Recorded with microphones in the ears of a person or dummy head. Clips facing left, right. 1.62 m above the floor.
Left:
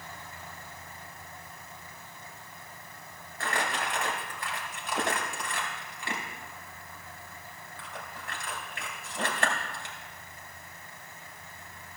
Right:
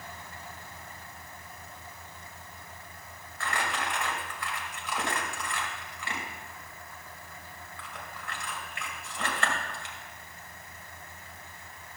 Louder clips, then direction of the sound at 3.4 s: Left 1 dB; 40° left (ahead or behind).